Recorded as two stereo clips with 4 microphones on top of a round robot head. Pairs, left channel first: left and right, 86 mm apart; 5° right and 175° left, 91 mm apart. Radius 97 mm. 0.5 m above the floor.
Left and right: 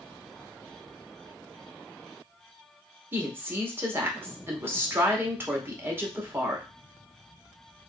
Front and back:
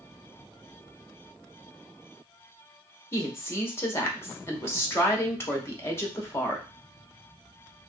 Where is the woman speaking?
45° right, 1.1 m.